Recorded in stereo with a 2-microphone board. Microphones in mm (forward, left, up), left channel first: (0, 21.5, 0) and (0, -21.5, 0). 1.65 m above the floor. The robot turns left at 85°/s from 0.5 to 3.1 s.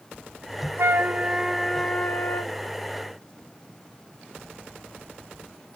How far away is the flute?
About 3 m.